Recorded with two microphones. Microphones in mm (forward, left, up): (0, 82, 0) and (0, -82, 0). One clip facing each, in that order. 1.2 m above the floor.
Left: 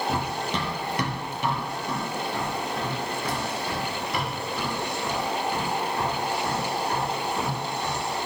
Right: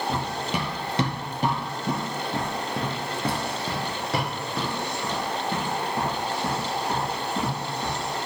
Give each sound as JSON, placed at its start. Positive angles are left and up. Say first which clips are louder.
{"t": 0.1, "sound": "running footsteps", "louder": "even", "side_deg": 0, "distance_m": 1.7}